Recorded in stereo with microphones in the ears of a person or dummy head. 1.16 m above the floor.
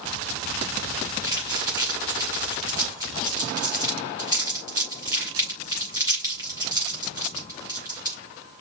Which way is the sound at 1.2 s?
25° right (ahead or behind).